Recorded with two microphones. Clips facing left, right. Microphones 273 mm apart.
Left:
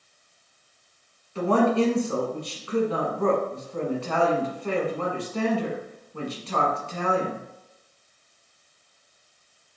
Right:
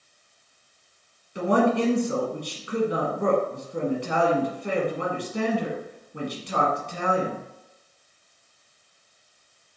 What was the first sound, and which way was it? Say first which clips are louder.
A woman speaking: left 1 dB; 15° right (ahead or behind).